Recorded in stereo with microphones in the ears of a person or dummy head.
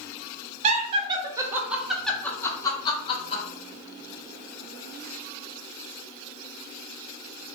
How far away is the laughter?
About 1.0 m.